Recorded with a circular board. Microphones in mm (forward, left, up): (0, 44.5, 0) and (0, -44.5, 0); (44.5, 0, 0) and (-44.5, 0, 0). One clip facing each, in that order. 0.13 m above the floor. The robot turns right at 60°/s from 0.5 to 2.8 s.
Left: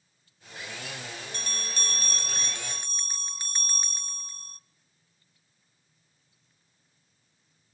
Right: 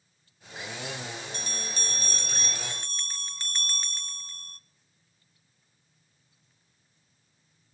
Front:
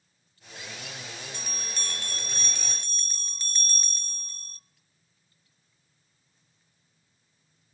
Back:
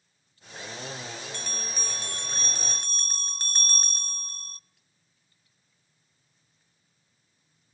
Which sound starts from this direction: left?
A bell, at 1.3 s.